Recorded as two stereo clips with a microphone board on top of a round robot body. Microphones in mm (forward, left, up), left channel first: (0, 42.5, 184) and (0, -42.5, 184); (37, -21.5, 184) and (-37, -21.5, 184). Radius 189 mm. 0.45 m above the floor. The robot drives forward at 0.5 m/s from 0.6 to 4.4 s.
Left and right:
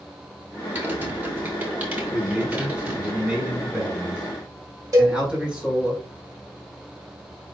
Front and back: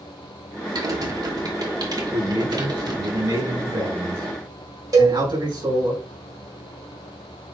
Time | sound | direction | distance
0.8 | typing on a keyboard | 160° right | 3 m
2.1 | a man speaking | 170° right | 5.5 m
4.9 | a cowbell | 140° right | 2.5 m